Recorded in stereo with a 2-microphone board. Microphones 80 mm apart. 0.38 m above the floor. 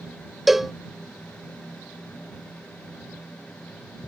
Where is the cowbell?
Centre (ahead or behind).